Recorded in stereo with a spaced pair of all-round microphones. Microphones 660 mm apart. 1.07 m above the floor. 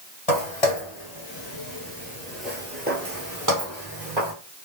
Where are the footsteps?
65° left (ahead or behind), 2 m; by 4.3 s 35° right (ahead or behind), 3 m.